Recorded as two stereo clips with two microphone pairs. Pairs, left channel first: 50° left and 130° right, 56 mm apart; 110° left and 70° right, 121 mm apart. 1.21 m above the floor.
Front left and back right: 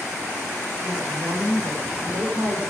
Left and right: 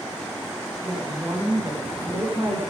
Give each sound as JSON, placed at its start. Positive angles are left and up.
{"t": 0.8, "sound": "a woman speaking", "azimuth_deg": -140, "distance_m": 5.0}